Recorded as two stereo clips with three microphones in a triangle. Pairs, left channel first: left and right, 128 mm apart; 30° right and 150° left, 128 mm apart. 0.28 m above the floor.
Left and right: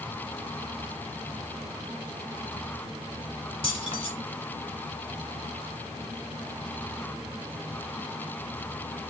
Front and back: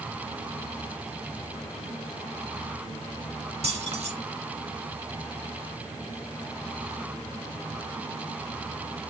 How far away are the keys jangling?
About 1.8 m.